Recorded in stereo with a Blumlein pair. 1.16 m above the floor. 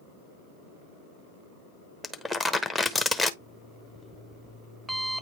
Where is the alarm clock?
Straight ahead, 0.9 m.